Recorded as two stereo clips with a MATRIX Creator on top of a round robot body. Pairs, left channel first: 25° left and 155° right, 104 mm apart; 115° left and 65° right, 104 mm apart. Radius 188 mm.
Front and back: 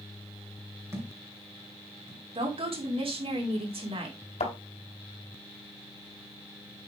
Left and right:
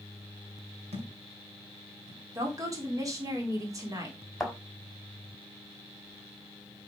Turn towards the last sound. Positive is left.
turn(degrees=25)